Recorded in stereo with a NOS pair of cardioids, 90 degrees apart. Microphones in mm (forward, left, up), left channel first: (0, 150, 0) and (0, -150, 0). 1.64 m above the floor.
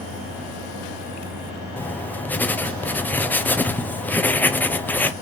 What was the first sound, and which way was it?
Writing, 5° left.